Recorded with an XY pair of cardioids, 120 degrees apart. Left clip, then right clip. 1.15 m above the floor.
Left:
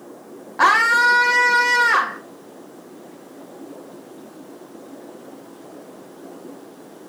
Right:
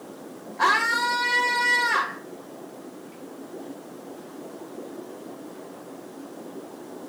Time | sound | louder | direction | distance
0.6 | a scream | left 7 dB | 65° left | 1.8 m